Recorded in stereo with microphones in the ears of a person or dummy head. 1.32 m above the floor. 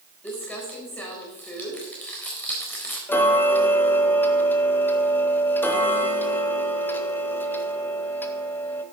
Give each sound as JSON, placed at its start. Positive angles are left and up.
{"t": 0.2, "sound": "crumpling", "side_deg": 5, "distance_m": 3.5}
{"t": 3.1, "sound": "ticking", "side_deg": 15, "distance_m": 1.6}